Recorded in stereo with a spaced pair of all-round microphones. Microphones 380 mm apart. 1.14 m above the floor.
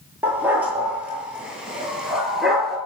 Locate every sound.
0.2 s a dog barking: 5° right (ahead or behind), 8 m; by 2.8 s centre (ahead or behind), 6.5 m